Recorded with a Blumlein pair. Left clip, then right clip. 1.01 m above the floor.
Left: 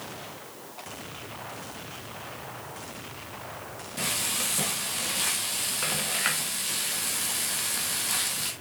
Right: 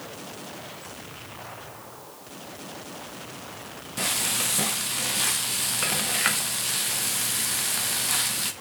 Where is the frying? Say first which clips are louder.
Right 3 dB; 15° right, 1.2 m.